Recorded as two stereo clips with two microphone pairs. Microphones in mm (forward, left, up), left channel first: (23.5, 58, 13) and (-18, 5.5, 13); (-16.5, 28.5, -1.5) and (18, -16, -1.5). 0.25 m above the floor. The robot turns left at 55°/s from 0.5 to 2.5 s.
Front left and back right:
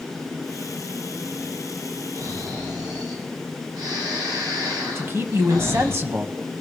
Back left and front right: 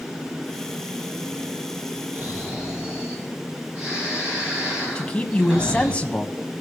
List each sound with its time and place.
2.1 s snoring: 105° right, 7.5 m; by 6.0 s 125° right, 7.5 m
5.0 s a man speaking: 165° right, 1.4 m